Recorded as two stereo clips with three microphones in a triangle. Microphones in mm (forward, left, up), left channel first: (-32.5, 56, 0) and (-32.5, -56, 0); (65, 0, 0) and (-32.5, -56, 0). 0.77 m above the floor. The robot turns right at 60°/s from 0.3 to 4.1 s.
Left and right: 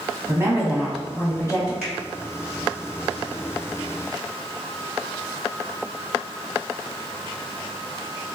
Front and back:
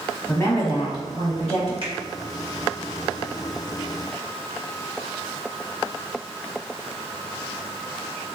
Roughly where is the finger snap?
Behind.